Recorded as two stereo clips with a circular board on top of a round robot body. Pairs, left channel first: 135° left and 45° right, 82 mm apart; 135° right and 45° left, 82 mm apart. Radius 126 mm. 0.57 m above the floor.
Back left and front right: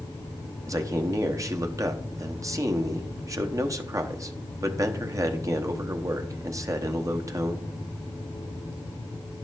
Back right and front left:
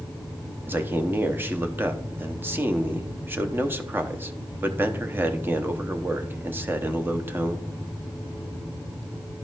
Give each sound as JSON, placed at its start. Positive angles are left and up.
{"t": 0.7, "sound": "a man speaking", "azimuth_deg": -10, "distance_m": 0.9}